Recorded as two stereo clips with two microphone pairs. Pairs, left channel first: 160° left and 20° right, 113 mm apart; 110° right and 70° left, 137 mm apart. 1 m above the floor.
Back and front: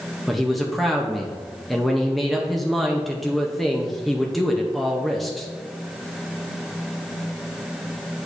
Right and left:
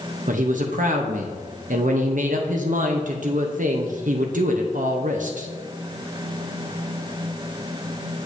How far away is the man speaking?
About 0.6 m.